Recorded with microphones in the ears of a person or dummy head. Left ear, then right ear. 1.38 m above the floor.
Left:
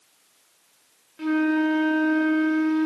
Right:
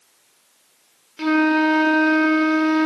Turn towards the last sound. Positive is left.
turn(degrees=-30)  # may be behind; listen again after turning